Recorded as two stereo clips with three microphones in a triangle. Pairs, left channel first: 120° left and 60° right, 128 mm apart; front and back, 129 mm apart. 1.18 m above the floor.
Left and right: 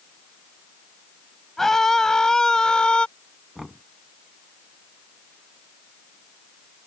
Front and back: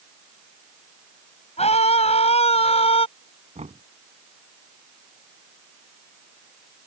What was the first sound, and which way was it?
A scream, 35° left.